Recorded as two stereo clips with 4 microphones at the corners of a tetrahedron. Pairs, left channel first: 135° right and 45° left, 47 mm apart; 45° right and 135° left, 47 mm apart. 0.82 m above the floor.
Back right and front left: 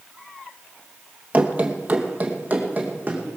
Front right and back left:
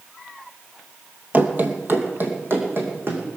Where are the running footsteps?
95° left, 1.3 m; by 3.2 s 100° left, 3.5 m.